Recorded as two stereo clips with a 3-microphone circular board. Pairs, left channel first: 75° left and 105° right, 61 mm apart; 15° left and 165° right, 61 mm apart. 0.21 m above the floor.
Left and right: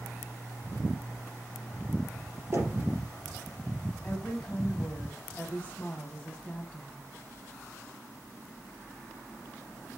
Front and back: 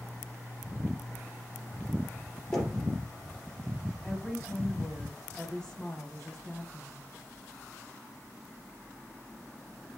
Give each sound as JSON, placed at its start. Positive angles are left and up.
{"t": 2.5, "sound": "knocking", "azimuth_deg": -65, "distance_m": 3.5}
{"t": 4.0, "sound": "a woman speaking", "azimuth_deg": 80, "distance_m": 1.1}